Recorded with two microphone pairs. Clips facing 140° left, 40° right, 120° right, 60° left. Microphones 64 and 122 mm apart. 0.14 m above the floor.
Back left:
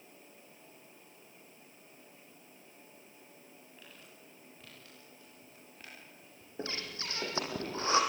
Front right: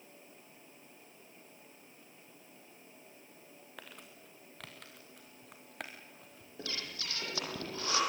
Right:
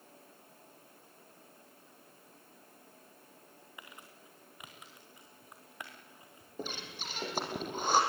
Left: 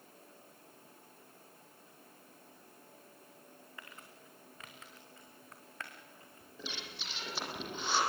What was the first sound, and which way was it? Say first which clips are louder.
Crumpling: front right 3 dB, right 2 dB; 45° right.